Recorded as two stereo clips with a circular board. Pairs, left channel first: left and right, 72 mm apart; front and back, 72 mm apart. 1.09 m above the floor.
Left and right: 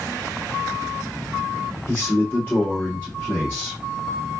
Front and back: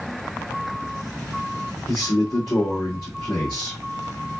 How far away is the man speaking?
About 1.5 m.